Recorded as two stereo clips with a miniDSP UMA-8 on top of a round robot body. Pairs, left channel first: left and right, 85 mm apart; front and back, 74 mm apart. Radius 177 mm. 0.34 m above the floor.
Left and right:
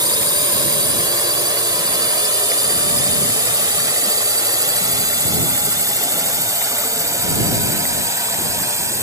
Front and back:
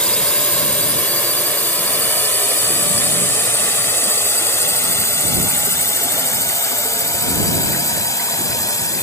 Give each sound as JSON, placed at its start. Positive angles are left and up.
{"t": 0.0, "sound": "a drone", "azimuth_deg": -75}